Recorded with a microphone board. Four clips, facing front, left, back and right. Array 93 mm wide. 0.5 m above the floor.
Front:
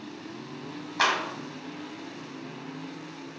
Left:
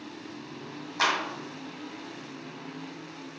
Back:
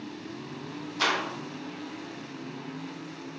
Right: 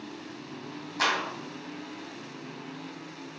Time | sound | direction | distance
1.0 | a clap | 15° left | 3 m